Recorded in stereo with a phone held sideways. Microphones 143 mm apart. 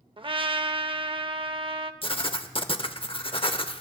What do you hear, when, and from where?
0.2 s a trumpet: 40° right (ahead or behind), 0.5 m
2.0 s writing: 40° left (ahead or behind), 0.6 m